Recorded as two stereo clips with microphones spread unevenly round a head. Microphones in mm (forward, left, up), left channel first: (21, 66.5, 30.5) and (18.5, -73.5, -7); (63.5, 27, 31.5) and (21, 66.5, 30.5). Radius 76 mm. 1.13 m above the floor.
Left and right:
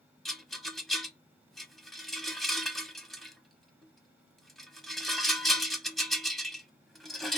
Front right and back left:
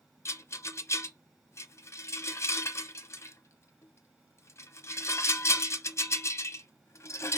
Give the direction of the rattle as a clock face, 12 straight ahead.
12 o'clock.